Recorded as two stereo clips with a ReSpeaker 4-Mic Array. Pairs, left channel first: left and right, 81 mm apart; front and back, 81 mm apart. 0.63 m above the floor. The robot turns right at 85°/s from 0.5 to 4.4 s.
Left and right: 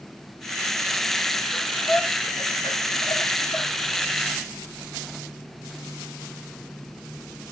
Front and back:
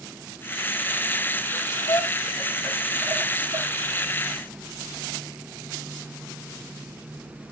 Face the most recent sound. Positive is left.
turn(degrees=-130)